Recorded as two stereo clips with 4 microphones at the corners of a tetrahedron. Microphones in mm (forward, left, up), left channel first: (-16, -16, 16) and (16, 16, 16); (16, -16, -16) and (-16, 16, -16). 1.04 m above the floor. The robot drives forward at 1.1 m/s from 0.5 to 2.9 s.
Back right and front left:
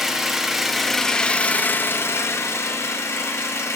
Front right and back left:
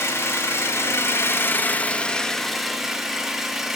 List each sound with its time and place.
0.0 s an engine running: 40° right, 1.7 m; by 3.8 s 140° right, 1.8 m